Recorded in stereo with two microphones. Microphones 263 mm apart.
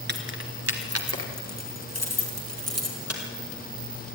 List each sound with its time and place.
0.1 s keys jangling: 40° right (ahead or behind), 2 m; by 3.2 s 65° right (ahead or behind), 4.5 m